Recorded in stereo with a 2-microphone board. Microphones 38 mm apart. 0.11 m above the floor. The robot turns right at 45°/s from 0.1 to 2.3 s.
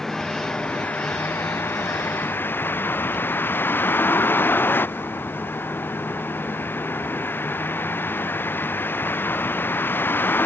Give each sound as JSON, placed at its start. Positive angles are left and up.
{"t": 0.0, "sound": "a vehicle", "azimuth_deg": 10}